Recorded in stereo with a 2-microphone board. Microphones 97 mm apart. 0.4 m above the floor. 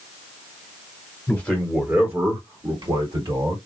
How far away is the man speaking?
About 1.3 m.